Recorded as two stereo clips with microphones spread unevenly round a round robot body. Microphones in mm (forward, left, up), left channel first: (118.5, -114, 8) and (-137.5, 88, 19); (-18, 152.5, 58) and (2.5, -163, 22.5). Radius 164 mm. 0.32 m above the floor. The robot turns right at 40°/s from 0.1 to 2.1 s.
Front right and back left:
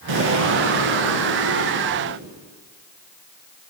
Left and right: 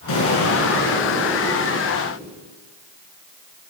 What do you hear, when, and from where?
0.1 s an explosion: 125° left, 3.5 m; by 2.3 s 155° right, 3.5 m